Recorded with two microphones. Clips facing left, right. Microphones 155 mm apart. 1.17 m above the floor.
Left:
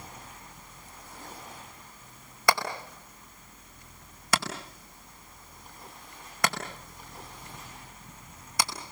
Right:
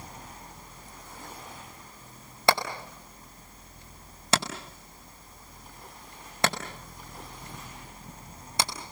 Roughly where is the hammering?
Right.